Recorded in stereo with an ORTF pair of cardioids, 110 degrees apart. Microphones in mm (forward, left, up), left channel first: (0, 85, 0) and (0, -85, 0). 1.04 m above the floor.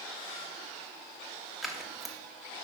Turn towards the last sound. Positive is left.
turn(degrees=0)